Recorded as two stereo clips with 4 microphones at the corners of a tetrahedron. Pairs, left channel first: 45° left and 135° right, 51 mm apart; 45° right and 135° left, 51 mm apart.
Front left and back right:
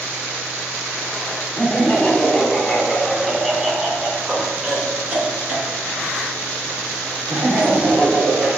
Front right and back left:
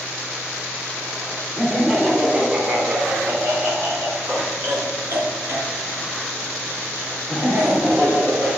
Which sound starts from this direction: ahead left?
Laughter, at 1.6 s.